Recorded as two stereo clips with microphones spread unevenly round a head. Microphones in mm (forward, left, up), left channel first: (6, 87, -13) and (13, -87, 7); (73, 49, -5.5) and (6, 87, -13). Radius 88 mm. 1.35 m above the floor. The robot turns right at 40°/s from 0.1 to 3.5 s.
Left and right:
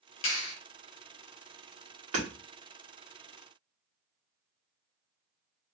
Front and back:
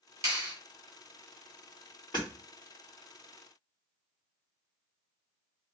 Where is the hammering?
95° right, 1.3 m; by 2.3 s 90° right, 1.3 m.